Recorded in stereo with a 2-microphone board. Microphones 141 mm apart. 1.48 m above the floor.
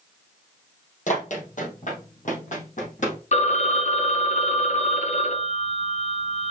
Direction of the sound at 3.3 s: 55° left (ahead or behind).